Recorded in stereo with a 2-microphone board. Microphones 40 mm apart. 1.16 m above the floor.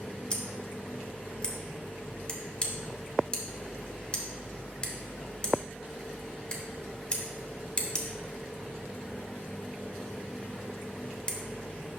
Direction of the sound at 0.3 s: 25° left (ahead or behind).